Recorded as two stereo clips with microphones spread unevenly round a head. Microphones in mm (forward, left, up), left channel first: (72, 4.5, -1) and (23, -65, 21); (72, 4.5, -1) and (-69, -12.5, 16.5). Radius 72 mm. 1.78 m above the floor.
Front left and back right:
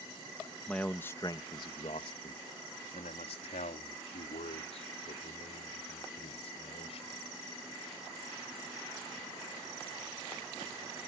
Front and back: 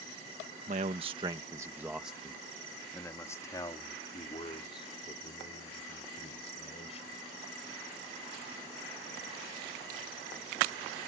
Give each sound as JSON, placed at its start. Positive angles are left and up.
{"t": 0.7, "sound": "a man speaking", "azimuth_deg": 145}